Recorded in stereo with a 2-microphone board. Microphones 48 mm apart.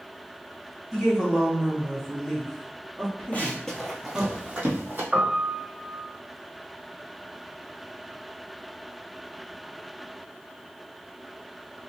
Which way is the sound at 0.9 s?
Centre (ahead or behind).